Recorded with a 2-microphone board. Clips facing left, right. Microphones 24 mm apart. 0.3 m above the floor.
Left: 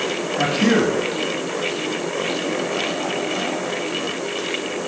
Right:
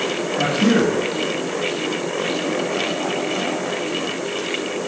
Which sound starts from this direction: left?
A man speaking, at 0.4 s.